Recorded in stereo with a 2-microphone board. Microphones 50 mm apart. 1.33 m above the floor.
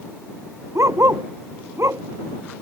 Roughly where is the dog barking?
Right.